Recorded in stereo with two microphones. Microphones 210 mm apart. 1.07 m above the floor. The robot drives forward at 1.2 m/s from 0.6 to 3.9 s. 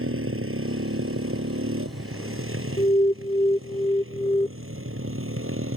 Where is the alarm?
30° left (ahead or behind); by 4.5 s 20° left (ahead or behind).